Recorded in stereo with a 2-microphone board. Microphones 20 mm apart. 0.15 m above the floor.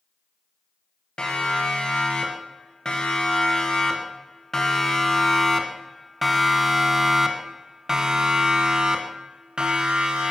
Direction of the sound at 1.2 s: 45° left (ahead or behind).